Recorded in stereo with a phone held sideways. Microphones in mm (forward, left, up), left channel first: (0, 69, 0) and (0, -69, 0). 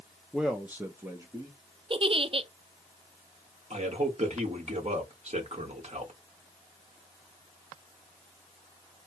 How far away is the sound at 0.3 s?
About 0.5 m.